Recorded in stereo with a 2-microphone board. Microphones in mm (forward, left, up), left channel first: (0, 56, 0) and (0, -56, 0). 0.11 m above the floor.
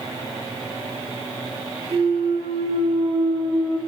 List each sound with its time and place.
1.9 s a clunk: 25° right (ahead or behind), 2.5 m